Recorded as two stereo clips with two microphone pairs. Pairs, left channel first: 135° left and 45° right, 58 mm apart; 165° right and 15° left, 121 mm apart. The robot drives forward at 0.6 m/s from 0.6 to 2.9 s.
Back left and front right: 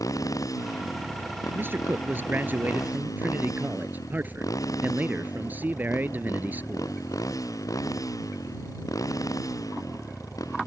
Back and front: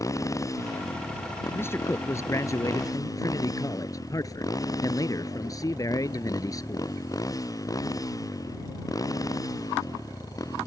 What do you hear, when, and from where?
0.0 s a motorcycle: 135° left
1.6 s a man speaking: 90° right; by 7.0 s 100° right